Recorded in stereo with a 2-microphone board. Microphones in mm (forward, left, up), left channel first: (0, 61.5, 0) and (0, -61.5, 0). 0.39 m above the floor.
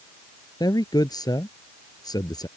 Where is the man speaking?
35° left (ahead or behind).